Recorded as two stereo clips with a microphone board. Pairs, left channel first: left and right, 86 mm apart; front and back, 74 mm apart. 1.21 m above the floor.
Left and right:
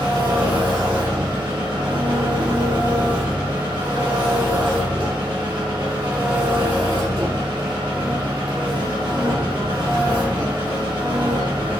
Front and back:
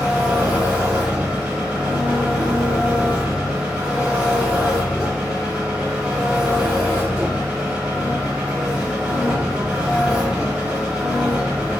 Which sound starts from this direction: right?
An engine running, at 0.0 s.